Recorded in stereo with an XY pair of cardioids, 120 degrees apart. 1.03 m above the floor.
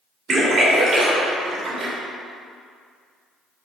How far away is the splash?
About 2.5 m.